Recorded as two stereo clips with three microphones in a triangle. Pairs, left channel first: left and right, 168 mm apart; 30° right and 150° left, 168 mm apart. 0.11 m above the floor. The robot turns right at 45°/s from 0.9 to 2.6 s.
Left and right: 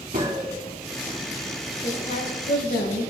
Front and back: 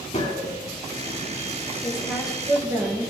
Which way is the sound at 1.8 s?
45° left.